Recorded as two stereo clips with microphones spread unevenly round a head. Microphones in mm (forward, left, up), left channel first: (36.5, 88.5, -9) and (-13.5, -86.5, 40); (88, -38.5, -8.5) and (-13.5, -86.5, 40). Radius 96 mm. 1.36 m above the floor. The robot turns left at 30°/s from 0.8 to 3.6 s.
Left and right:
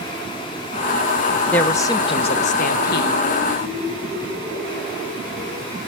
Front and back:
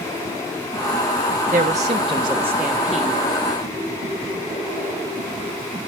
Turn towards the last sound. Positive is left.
turn(degrees=95)